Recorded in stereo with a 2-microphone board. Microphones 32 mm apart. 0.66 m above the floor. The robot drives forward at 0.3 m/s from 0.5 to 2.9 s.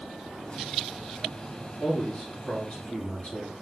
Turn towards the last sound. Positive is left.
turn(degrees=40)  # may be behind; listen again after turning